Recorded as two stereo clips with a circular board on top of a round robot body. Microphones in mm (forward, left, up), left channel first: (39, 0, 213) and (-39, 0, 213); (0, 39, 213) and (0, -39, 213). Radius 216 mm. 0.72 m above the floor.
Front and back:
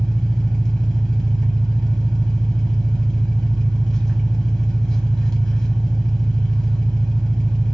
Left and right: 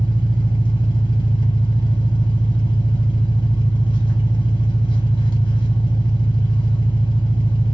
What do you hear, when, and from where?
0.0 s an engine running: 80° left, 1.0 m